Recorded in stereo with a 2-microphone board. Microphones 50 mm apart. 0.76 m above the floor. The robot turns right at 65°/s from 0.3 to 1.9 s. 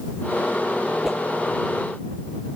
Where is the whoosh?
5° right (ahead or behind); by 1.2 s 5° left (ahead or behind).